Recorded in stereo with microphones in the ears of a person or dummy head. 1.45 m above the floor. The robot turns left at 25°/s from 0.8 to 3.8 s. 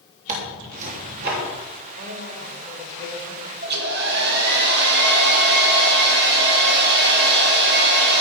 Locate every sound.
0.3 s tearing paper: 40° right (ahead or behind), 3 m; by 1.4 s 55° right (ahead or behind), 3 m
2.0 s a woman speaking: 85° right, 4 m; by 3.5 s 120° right, 4 m
3.6 s a hair dryer: 55° right (ahead or behind), 1.8 m; by 8.2 s 60° right (ahead or behind), 1.8 m